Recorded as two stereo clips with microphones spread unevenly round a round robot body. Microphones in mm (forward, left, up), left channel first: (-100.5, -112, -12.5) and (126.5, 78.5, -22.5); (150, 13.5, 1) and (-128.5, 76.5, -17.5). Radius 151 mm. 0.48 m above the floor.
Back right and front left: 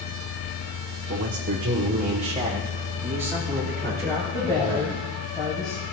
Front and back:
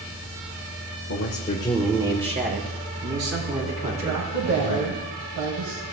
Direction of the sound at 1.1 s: 10° left.